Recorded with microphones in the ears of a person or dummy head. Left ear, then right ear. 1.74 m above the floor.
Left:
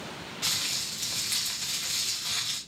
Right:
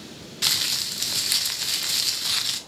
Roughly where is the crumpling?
Right.